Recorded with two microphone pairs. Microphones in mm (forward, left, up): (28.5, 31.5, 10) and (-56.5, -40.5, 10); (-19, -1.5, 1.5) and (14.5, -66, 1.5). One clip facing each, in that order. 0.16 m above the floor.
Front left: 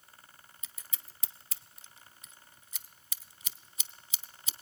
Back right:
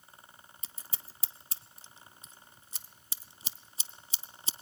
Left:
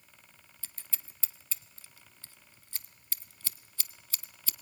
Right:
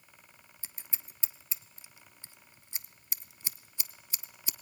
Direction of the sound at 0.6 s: 115° right.